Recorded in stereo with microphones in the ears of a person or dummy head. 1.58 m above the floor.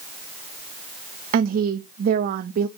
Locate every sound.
1.3 s a woman speaking: 50° right (ahead or behind), 0.6 m